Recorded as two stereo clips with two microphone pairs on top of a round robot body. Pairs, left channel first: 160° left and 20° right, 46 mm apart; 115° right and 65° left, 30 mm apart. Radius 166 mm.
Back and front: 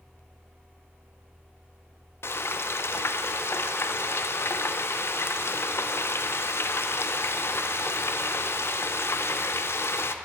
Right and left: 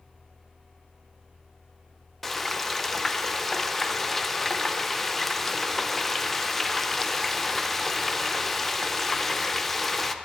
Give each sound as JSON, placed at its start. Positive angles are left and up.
{"t": 2.2, "sound": "frying", "azimuth_deg": 165, "distance_m": 0.5}